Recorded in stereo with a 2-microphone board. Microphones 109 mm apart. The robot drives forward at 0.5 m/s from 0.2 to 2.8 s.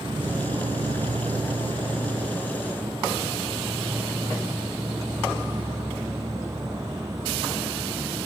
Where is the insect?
50° right (ahead or behind), 0.7 m; by 8.3 s 30° right (ahead or behind), 1.1 m.